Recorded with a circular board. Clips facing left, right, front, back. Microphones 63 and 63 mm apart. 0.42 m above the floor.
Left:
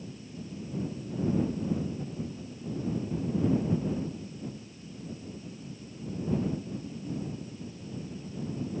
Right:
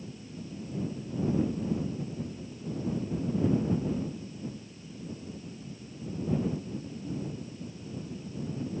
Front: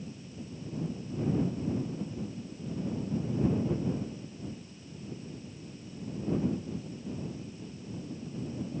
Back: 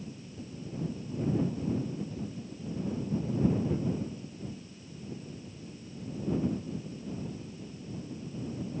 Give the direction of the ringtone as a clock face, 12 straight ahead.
No ringtone in this recording.